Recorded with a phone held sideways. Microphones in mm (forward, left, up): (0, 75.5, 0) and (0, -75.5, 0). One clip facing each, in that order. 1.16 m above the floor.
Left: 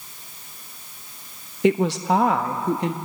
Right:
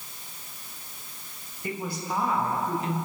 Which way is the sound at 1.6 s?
80° left.